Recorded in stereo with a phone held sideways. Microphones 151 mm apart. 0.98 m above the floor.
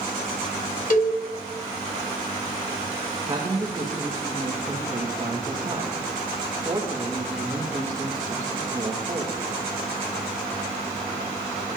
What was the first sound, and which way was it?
A cowbell, 60° left (ahead or behind).